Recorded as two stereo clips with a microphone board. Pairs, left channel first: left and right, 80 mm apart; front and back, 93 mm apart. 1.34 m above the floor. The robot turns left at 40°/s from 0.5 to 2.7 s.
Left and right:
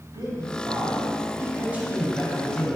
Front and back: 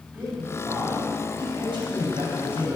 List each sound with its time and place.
0.1 s a man speaking: 110° right, 6.5 m; by 2.8 s 160° left, 6.5 m